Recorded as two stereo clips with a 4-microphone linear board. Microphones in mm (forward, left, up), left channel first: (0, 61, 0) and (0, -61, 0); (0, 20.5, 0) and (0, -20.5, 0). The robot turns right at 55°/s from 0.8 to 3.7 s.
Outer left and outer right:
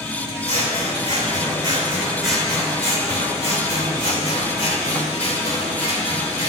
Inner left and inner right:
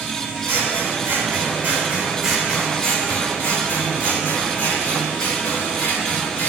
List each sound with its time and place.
0.4 s scissors: 85° right, 2.5 m; by 6.5 s 75° left, 2.5 m